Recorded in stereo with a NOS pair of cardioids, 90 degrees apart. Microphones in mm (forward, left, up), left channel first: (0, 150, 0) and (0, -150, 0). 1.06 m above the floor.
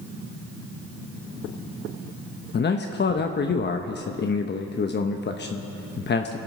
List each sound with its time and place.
2.5 s a man speaking: 35° left, 1.0 m